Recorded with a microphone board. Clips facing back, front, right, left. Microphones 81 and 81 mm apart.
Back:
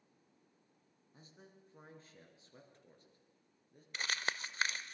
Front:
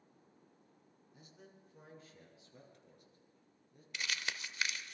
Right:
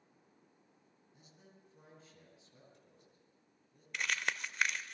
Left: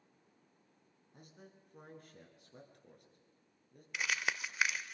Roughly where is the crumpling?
Behind.